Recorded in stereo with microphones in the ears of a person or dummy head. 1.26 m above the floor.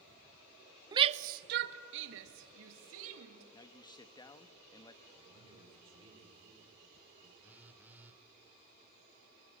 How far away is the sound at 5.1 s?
About 4.5 m.